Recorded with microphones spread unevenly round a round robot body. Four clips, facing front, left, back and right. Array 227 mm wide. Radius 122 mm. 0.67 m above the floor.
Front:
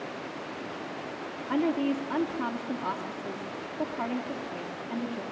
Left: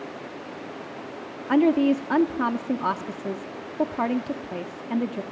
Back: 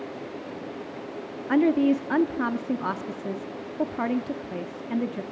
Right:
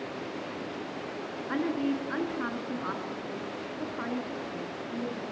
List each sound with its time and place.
1.5 s a woman speaking: 115° left, 1.1 m